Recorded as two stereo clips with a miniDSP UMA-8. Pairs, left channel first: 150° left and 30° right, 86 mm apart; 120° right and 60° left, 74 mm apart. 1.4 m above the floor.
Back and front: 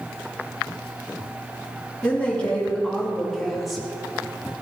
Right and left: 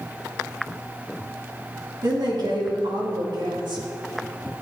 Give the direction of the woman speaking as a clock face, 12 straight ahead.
9 o'clock.